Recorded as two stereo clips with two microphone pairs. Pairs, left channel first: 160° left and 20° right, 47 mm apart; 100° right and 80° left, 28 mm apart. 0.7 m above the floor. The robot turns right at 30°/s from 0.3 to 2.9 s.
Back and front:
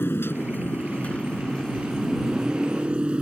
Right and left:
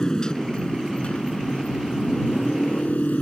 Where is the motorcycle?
165° right; by 3.2 s 85° right.